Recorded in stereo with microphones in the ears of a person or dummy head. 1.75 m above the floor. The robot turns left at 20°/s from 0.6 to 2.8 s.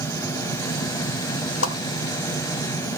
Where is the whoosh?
80° left, 1.1 m; by 1.8 s 85° left, 1.1 m.